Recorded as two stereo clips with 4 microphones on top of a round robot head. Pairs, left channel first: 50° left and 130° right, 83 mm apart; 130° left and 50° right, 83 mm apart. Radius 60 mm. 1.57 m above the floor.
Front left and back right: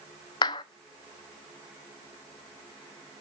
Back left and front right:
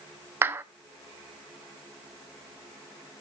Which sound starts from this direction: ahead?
A clap, at 0.4 s.